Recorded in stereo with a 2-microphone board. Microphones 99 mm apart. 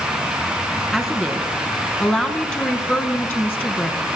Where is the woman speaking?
Centre (ahead or behind), 5 m; by 4.2 s 25° left (ahead or behind), 4.5 m.